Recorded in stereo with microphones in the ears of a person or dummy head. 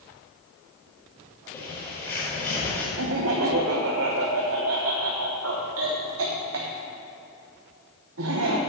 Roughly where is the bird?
Centre.